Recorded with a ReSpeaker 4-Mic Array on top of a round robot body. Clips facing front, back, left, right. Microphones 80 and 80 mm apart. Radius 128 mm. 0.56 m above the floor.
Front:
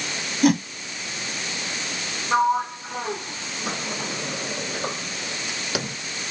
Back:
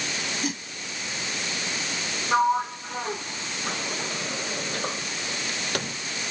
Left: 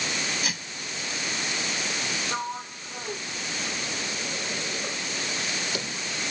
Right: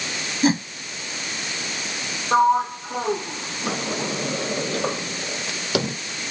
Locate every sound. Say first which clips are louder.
0.4 s a whoosh: front 17 dB, right 15 dB; 30° right
2.3 s a sliding door: front 2 dB, right 15 dB; 85° right